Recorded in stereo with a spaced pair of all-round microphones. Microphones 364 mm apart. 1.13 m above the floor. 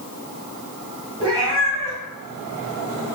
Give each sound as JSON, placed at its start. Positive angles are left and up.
{"t": 1.2, "sound": "a cat meowing", "side_deg": -15, "distance_m": 1.8}